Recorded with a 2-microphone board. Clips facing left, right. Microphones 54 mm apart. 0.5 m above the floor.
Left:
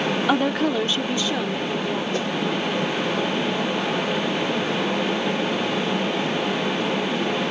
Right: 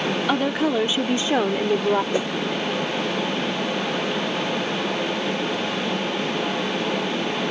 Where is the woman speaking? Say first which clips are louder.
Even; 10° left (ahead or behind); by 2.0 s 50° right (ahead or behind).